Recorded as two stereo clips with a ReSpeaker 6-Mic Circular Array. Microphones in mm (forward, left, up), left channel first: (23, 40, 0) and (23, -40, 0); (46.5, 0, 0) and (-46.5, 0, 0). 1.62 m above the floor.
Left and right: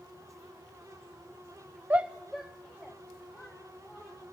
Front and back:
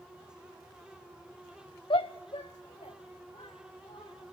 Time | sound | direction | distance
1.9 | a shout | 20° right | 0.5 m